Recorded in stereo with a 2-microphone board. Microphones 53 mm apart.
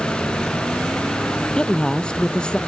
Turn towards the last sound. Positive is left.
turn(degrees=15)  # may be behind; listen again after turning